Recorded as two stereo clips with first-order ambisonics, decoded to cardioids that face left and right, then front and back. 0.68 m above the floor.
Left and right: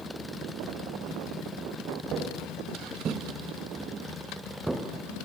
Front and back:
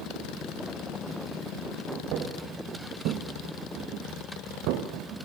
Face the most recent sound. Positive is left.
turn(degrees=-175)